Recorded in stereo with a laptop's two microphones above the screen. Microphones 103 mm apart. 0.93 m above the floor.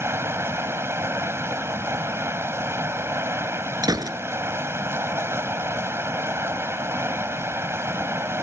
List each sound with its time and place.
0.0 s running water: 25° right (ahead or behind)
3.8 s a gunshot: 40° right (ahead or behind)